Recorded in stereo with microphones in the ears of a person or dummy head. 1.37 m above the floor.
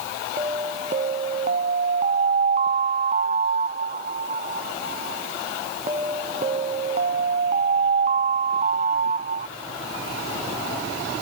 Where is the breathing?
I don't hear breathing.